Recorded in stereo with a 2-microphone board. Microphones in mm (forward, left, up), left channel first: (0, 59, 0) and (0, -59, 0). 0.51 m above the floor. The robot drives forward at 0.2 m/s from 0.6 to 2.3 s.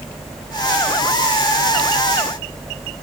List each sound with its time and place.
Only background noise.